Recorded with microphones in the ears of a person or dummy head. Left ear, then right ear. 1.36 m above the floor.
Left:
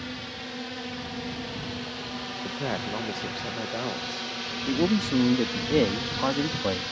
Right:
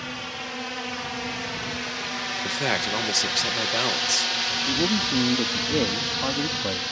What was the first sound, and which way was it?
A drone, 35° right (ahead or behind).